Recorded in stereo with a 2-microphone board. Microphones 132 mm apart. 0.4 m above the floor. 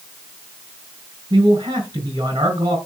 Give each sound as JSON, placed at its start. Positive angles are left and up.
{"t": 1.3, "sound": "a man speaking", "side_deg": -35, "distance_m": 4.0}